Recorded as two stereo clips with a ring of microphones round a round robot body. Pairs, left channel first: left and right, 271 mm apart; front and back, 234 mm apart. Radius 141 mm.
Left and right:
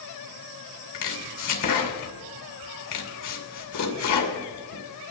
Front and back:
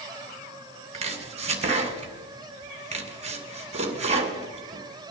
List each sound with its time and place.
0.9 s chopping: 120° left, 2.5 m